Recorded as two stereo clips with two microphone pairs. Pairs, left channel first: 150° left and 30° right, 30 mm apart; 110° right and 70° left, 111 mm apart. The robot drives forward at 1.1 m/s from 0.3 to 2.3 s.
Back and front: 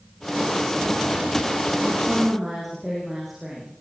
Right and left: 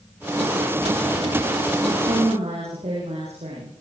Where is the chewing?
No chewing in this recording.